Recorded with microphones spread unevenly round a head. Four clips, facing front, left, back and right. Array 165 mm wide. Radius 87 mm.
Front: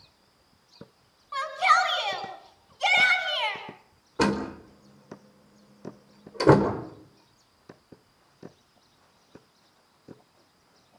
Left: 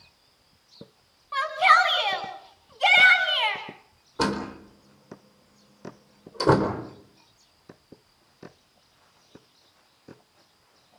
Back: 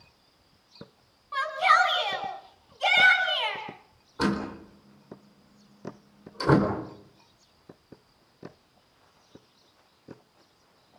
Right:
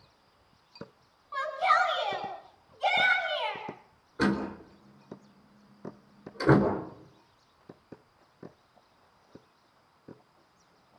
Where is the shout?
75° left, 10 m; by 3.6 s 70° left, 9.5 m.